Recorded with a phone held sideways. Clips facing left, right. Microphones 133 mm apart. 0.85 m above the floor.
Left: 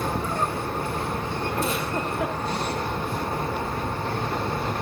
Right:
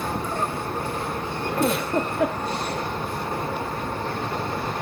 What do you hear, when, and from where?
1.6 s a giggle: 65° right (ahead or behind), 7 m